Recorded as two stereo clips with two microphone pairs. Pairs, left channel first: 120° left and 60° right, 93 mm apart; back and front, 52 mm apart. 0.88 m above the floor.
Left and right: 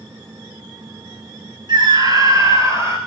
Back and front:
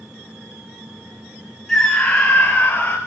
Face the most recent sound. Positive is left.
turn(degrees=-120)